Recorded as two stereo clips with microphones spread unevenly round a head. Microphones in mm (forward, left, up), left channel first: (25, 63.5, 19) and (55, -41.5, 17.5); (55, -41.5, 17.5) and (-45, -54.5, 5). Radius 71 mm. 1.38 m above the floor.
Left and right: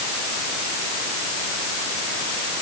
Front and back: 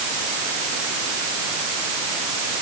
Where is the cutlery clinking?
I don't hear cutlery clinking.